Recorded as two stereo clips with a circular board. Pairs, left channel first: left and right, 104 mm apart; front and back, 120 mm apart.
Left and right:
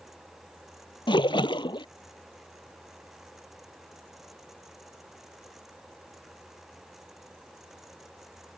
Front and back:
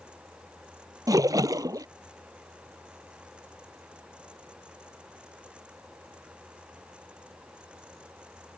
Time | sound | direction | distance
1.1 | a splash | 125° left | ?